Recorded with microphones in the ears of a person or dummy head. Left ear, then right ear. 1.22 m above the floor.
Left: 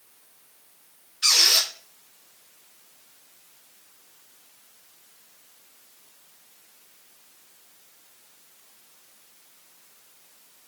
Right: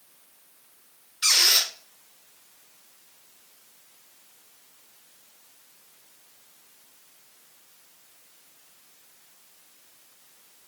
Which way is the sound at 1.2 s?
20° right (ahead or behind).